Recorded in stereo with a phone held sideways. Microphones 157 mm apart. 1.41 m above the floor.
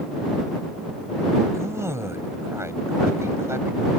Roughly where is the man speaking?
Centre.